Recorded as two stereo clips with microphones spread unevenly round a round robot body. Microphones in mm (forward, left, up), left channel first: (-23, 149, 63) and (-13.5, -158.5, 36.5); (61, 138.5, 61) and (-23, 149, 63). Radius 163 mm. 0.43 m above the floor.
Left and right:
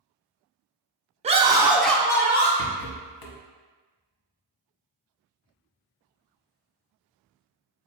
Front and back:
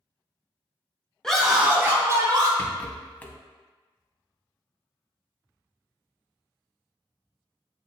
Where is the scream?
80° right, 0.7 m; by 2.5 s 160° left, 0.9 m.